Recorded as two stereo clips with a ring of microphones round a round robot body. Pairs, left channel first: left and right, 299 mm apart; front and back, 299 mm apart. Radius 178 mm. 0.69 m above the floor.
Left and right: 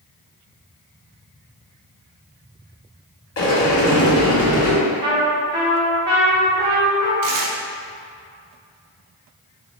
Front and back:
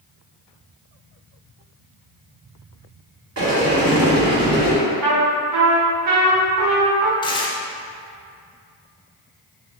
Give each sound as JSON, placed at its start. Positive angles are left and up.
{"t": 3.4, "sound": "a sliding door", "azimuth_deg": 125, "distance_m": 1.5}
{"t": 5.0, "sound": "a trumpet", "azimuth_deg": -150, "distance_m": 1.0}
{"t": 7.2, "sound": "tearing paper", "azimuth_deg": -75, "distance_m": 0.6}